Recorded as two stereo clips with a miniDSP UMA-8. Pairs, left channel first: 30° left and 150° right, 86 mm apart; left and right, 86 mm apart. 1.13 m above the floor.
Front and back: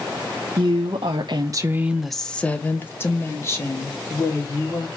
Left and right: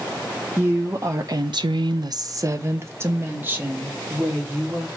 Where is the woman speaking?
160° right, 1.0 m; by 4.9 s 20° right, 3 m.